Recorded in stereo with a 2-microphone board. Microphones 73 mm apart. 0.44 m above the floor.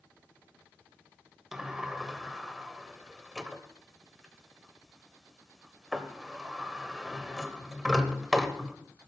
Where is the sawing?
I don't hear sawing.